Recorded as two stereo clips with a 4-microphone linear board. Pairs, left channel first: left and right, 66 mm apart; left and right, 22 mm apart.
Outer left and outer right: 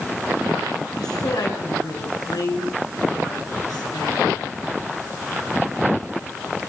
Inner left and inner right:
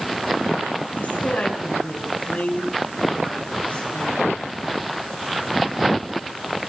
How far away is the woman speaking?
About 7 m.